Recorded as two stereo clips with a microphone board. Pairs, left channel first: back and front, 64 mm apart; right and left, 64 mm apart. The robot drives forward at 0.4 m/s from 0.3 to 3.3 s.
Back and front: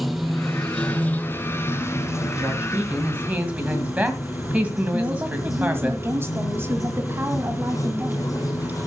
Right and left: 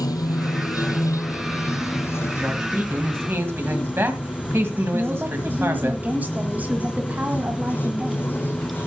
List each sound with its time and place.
0.0 s running water: 90° right, 0.7 m; by 8.9 s 150° right, 1.4 m
2.4 s a man speaking: 45° left, 2 m; by 5.9 s 60° left, 1.8 m
4.9 s a woman speaking: 35° left, 1.6 m